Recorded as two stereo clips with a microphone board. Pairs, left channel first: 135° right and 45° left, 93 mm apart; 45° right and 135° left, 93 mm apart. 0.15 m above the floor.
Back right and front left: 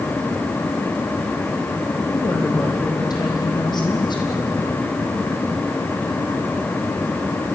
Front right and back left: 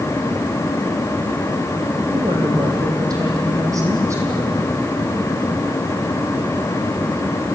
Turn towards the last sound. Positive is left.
turn(degrees=-165)